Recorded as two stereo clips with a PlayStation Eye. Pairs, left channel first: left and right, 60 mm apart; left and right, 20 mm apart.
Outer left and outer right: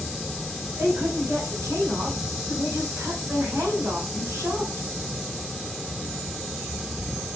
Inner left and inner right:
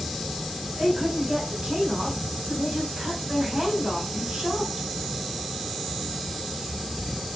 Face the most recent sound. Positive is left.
turn(degrees=-60)  # may be behind; listen again after turning